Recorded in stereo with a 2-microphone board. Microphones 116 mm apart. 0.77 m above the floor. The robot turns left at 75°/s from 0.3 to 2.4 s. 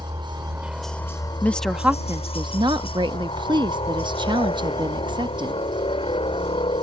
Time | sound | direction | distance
0.0 | a helicopter | 140° right | ?
1.4 | a woman speaking | 20° left | ?